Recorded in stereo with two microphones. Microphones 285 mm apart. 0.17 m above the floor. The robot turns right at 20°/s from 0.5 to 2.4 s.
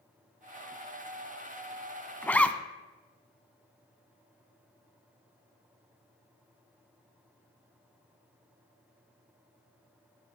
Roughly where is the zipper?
Centre.